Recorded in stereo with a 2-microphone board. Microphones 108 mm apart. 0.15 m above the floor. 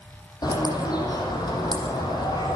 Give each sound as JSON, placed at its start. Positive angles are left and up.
{"t": 0.4, "sound": "a bird", "side_deg": 40, "distance_m": 6.0}